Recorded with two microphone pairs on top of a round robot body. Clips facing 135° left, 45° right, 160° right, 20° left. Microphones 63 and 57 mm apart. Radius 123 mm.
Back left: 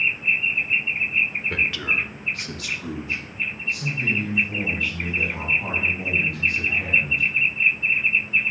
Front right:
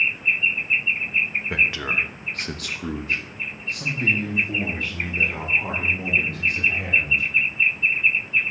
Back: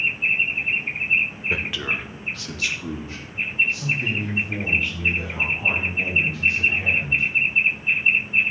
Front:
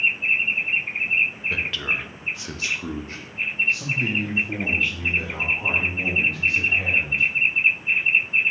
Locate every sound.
1.5 s a man speaking: 110° right, 1.1 m; by 7.3 s 5° left, 4 m